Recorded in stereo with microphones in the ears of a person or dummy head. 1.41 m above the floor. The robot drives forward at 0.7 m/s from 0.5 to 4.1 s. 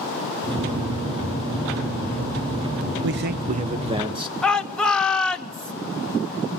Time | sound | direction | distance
3.0 | a man speaking | 55° right (ahead or behind) | 0.6 m
4.4 | a shout | centre (ahead or behind) | 1.5 m